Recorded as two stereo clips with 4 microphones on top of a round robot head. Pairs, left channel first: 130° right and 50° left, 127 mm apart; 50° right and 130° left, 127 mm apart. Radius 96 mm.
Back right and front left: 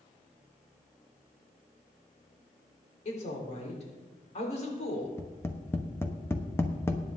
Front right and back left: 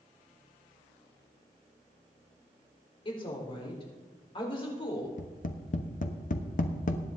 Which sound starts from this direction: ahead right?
Tapping, at 5.2 s.